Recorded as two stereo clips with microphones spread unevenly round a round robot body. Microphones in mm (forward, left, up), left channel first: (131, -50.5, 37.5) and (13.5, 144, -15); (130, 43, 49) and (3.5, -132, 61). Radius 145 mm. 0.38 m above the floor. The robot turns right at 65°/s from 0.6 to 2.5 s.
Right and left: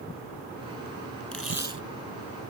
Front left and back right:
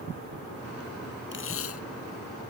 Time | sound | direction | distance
1.3 | tape being pulled | 25° left | ?